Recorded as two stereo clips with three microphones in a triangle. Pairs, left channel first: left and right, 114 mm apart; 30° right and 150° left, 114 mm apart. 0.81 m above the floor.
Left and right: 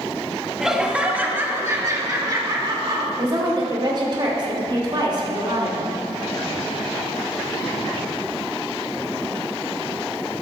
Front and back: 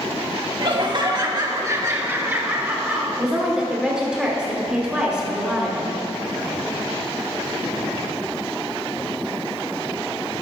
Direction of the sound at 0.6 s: 175° right.